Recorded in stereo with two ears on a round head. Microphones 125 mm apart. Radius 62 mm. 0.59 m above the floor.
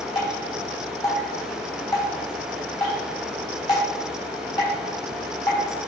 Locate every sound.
0.1 s dripping: 30° left (ahead or behind), 3.5 m